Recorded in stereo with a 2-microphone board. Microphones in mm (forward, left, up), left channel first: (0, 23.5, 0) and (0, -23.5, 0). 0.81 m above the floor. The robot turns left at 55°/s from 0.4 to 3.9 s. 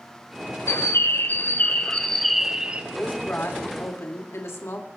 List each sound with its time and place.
0.7 s a bird: 90° left, 0.8 m; by 2.8 s 30° right, 0.8 m
2.9 s a woman speaking: 150° left, 2 m; by 4.9 s 95° left, 2 m